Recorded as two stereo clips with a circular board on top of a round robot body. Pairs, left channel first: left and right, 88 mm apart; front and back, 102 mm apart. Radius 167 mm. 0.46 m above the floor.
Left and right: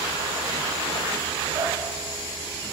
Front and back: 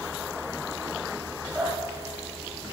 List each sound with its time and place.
1.6 s dripping: 100° right, 9.5 m